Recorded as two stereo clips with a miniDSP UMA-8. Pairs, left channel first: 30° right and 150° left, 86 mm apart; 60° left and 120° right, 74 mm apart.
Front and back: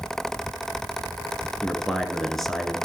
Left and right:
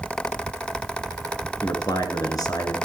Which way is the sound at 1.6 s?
55° left.